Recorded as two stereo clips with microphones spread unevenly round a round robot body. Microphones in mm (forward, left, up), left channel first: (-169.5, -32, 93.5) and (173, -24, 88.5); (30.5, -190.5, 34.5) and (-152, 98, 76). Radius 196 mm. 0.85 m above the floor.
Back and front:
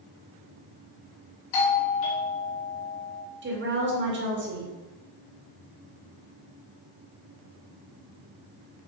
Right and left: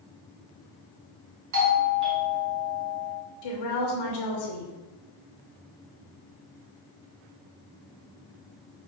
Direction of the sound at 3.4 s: 60° right.